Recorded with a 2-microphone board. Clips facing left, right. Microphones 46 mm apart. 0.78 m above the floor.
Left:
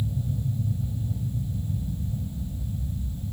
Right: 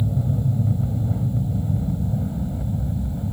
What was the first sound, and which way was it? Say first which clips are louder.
An aircraft: right 7 dB; 55° right (ahead or behind).